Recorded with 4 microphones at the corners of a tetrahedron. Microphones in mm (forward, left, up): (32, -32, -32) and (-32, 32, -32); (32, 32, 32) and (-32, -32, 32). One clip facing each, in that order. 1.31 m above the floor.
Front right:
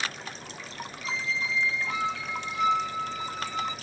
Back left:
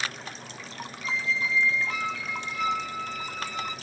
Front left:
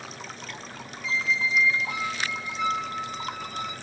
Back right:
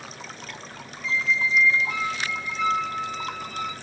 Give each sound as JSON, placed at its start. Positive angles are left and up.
{"t": 1.0, "sound": "a squeak", "azimuth_deg": 0, "distance_m": 1.1}